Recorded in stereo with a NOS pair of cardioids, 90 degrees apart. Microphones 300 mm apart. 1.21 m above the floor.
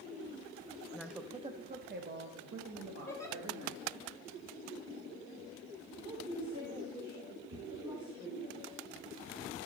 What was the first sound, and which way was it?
A woman speaking, 10° left.